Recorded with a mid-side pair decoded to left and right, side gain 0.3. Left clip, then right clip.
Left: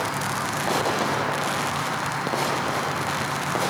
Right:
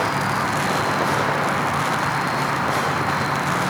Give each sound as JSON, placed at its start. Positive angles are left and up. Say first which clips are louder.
{"t": 0.0, "sound": "an insect", "louder": "right 5 dB", "azimuth_deg": -60}